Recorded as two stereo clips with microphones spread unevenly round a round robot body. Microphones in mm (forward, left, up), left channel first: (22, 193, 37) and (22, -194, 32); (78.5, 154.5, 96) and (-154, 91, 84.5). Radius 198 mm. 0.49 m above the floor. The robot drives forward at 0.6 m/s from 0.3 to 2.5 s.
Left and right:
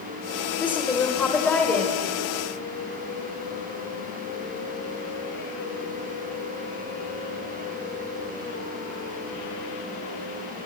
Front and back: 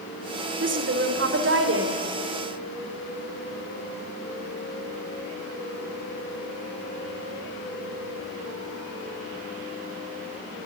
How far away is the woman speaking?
About 1.7 m.